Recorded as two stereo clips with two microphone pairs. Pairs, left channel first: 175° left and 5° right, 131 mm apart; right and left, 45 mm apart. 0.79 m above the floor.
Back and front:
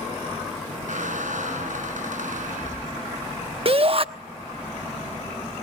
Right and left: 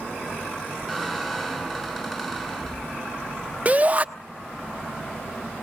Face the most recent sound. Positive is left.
turn(degrees=35)